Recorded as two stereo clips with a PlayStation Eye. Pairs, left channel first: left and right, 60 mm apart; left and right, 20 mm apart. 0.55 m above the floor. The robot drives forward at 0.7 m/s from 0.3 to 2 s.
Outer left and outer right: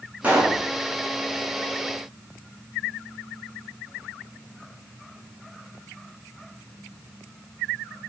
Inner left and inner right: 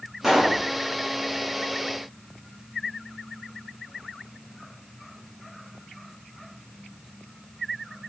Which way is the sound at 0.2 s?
25° right (ahead or behind).